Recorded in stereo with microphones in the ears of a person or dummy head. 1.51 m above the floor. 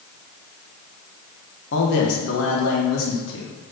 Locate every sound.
1.7 s a man speaking: 70° left (ahead or behind), 1.5 m; by 3.5 s 85° left, 2.5 m